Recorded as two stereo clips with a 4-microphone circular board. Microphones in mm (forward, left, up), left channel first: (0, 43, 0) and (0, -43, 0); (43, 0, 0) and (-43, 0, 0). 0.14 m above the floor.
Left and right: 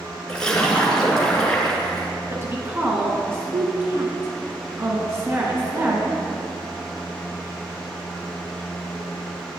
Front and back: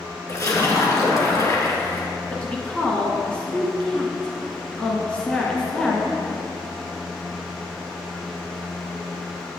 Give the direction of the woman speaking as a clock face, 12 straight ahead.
2 o'clock.